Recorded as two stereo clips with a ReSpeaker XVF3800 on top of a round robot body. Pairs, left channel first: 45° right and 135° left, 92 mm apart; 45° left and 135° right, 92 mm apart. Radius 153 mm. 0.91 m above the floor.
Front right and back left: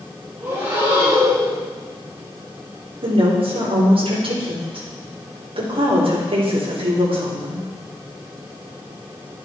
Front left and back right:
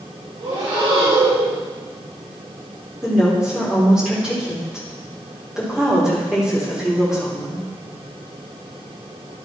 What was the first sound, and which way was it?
Breathing, 160° right.